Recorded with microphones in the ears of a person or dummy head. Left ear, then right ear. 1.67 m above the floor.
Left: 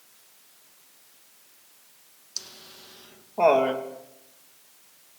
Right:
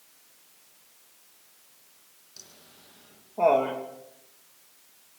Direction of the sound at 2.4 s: 35° left (ahead or behind).